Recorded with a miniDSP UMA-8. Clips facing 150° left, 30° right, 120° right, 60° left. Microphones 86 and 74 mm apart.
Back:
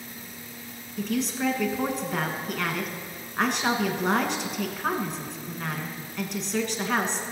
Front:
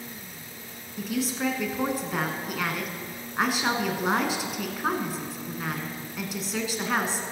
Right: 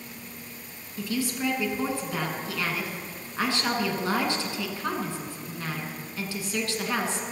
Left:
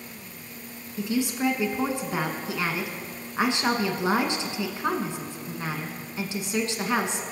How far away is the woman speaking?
About 1.2 m.